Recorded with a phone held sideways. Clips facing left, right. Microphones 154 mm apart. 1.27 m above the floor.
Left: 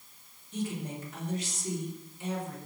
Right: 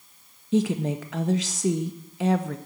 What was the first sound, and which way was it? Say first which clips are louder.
A woman speaking: right 12 dB; 85° right.